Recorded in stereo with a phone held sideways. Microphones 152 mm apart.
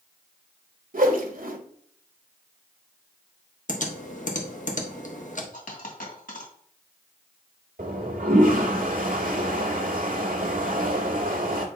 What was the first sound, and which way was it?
A whoosh, 70° right (ahead or behind).